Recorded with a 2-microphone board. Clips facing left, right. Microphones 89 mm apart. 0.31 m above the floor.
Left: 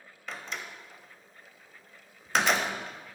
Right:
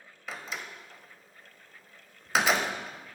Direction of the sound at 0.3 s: 5° right (ahead or behind).